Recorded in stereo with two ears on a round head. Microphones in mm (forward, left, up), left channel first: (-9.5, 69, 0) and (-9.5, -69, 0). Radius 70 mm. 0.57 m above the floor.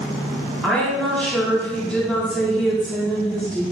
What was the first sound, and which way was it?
A woman speaking, 5° left (ahead or behind).